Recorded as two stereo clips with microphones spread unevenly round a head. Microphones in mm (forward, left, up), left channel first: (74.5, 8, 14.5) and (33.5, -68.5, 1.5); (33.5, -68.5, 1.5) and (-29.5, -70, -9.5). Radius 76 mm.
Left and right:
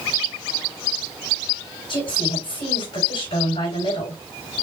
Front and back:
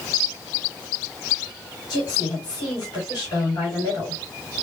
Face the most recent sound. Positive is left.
turn(degrees=40)